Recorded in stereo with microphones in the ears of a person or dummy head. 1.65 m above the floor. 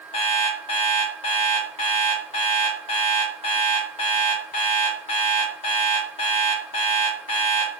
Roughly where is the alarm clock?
Left.